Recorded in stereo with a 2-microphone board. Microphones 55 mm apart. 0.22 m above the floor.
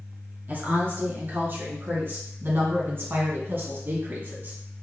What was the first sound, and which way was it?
A woman speaking, 40° right (ahead or behind).